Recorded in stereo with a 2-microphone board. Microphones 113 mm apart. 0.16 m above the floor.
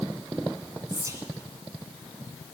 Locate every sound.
0.9 s whispering: 30° right (ahead or behind), 1.7 m